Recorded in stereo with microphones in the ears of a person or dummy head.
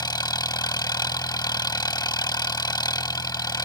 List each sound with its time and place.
0.0 s an engine running: 20° left (ahead or behind)